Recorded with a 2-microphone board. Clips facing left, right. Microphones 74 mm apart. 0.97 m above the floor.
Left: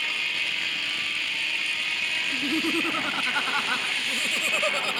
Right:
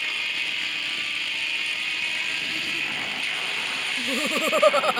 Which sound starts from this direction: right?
Laughter, at 4.0 s.